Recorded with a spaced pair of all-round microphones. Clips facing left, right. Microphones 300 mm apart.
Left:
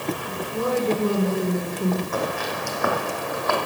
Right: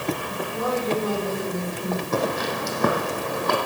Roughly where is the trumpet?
No trumpet in this recording.